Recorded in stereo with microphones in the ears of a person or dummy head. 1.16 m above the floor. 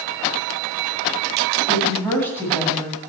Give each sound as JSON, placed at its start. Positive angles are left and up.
{"t": 1.7, "sound": "a woman speaking", "side_deg": 10, "distance_m": 7.5}